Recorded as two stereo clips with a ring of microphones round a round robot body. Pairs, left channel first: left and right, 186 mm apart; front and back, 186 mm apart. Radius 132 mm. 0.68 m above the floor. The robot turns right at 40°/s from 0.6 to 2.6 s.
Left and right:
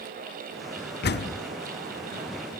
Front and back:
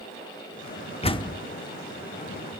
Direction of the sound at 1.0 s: 60° left.